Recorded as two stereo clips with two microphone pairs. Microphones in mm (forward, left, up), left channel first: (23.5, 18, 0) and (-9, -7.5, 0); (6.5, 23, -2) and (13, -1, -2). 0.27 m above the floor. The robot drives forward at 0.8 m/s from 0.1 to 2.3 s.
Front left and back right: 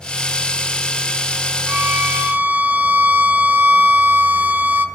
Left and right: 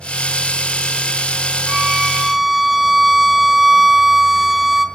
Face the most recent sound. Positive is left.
turn(degrees=-155)